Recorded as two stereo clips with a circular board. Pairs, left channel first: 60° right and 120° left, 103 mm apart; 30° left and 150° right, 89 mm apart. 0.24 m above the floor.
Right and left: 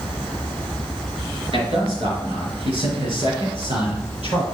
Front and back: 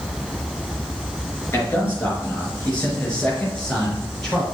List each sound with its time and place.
1.5 s a man speaking: 95° left, 4 m; by 4.4 s 120° left, 4.5 m